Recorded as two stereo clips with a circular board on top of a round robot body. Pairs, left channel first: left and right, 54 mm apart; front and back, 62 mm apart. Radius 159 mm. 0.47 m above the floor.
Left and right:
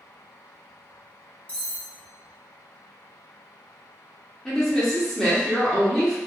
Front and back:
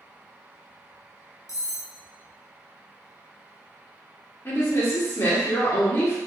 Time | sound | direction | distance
1.5 | cutlery clinking | 30° left | 1.3 m
4.5 | a woman speaking | 15° left | 1.4 m